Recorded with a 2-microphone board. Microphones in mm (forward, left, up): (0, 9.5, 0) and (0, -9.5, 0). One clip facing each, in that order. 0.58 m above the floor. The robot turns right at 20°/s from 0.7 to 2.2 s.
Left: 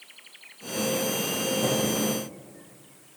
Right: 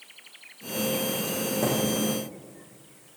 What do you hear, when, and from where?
1.6 s a thud: 30° right (ahead or behind), 8.5 m; by 1.9 s 25° right (ahead or behind), 8.5 m